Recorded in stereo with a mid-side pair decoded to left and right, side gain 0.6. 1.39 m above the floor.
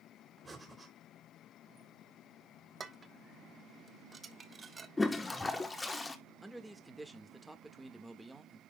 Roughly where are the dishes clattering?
Ahead right.